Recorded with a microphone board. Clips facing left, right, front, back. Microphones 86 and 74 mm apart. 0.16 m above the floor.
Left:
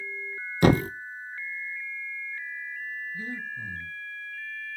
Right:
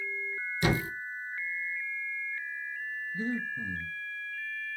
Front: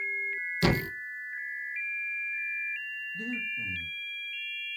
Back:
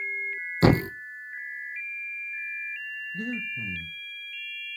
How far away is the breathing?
About 1.6 m.